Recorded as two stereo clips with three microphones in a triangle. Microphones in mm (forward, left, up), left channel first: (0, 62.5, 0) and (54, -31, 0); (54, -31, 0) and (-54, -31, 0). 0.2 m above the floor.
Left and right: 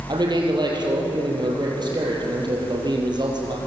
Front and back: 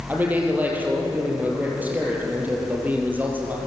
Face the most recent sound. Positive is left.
turn(degrees=-105)